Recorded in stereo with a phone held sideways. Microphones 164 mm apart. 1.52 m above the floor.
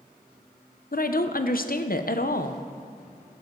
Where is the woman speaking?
65° left (ahead or behind), 0.7 m.